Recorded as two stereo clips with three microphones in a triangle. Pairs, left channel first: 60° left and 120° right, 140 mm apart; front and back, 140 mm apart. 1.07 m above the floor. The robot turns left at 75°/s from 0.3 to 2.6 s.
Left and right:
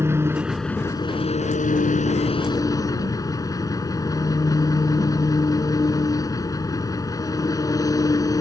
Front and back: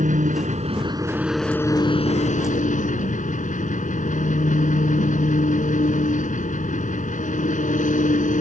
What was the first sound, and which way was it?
An engine running, 170° left.